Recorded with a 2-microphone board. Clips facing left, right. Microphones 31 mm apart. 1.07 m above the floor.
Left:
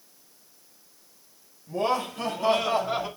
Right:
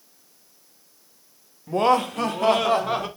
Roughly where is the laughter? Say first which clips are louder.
Right 7 dB; right.